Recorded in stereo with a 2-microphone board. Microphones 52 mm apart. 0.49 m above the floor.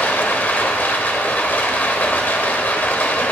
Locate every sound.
0.0 s running water: 35° left (ahead or behind), 0.9 m